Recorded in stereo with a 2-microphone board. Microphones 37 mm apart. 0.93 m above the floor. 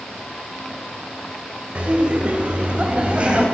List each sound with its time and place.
1.8 s laughter: 30° right (ahead or behind), 4 m